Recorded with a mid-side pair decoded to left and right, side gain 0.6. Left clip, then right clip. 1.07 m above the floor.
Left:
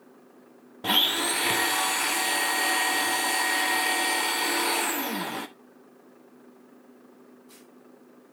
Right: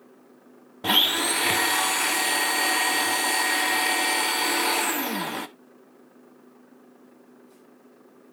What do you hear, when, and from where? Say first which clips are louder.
0.8 s a blender: right 2 dB; 15° right, 1.0 m